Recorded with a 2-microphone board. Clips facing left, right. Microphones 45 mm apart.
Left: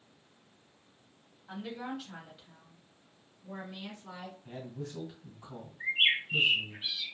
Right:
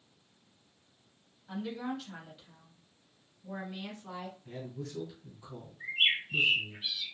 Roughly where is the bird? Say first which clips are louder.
Left 2 dB; left.